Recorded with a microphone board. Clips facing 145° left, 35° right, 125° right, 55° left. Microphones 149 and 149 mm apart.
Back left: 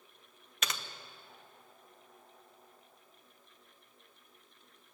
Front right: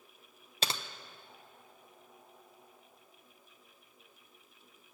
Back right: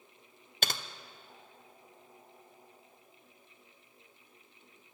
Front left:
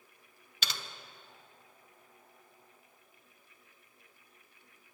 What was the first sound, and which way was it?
Typing on a keyboard, 90° right.